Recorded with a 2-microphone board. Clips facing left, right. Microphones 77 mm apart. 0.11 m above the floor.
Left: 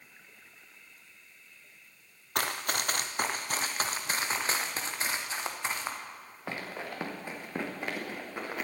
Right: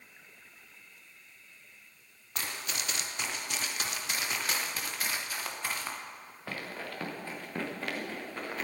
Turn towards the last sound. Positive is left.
turn(degrees=15)  # may be behind; listen again after turning